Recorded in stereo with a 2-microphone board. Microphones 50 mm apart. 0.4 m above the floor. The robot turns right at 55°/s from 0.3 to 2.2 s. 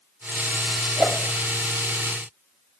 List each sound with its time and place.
1.0 s a whoosh: 40° left (ahead or behind), 1.0 m; by 1.2 s 30° left (ahead or behind), 1.0 m